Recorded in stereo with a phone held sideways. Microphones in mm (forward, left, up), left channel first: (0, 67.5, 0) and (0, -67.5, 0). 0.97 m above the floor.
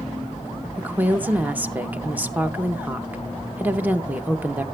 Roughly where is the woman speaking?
Centre.